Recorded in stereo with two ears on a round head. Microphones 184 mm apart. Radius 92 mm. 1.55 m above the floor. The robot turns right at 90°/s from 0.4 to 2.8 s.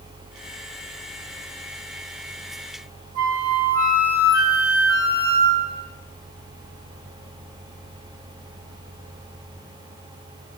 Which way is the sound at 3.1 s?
45° right (ahead or behind).